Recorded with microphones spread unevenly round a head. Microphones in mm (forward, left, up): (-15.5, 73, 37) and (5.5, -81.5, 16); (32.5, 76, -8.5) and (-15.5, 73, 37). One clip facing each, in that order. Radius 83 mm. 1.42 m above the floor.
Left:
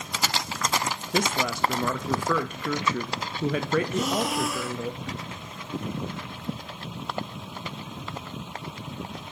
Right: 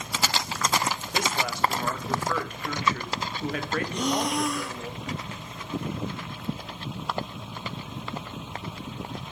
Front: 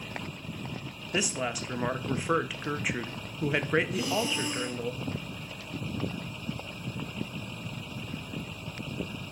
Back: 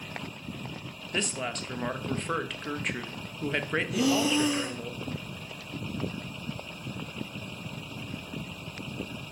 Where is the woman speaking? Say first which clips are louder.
Left 5 dB, front 2 dB; 90° left, 0.9 m.